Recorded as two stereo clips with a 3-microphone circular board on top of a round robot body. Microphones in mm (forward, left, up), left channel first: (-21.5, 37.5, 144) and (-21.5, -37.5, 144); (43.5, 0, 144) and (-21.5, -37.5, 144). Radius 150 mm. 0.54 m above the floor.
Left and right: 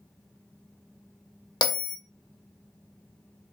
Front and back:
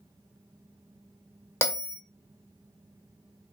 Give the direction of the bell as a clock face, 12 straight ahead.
9 o'clock.